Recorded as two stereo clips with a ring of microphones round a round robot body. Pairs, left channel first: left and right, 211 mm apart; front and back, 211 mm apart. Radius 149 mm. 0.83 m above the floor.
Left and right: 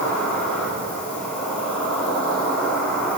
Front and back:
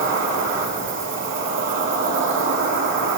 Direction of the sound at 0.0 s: 175° left.